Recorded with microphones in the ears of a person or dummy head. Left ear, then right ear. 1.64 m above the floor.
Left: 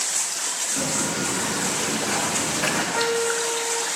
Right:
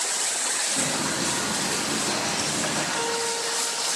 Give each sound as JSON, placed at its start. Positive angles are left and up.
{"t": 0.8, "sound": "footsteps", "side_deg": 0, "distance_m": 4.0}
{"t": 2.9, "sound": "a piano", "side_deg": 35, "distance_m": 3.0}